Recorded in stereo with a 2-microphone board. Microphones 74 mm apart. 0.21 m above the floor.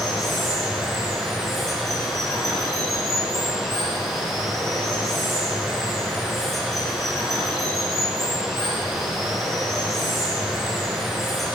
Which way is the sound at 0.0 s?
Centre (ahead or behind).